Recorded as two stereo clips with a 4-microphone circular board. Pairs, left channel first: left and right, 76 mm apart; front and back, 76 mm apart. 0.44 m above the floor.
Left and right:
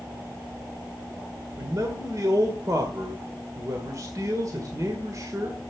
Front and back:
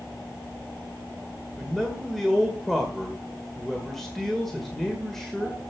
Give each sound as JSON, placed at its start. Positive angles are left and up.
{"t": 1.6, "sound": "a man speaking", "azimuth_deg": -85, "distance_m": 1.9}